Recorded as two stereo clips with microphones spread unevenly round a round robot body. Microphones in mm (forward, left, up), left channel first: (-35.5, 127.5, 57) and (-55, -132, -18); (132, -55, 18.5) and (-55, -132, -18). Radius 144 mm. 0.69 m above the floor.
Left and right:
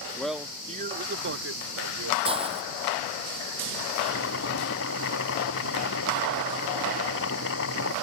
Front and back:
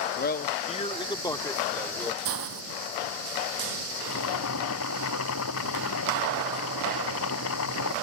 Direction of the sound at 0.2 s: 5° right.